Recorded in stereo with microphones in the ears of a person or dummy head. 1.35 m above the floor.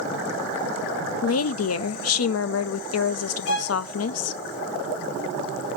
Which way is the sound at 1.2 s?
65° left (ahead or behind).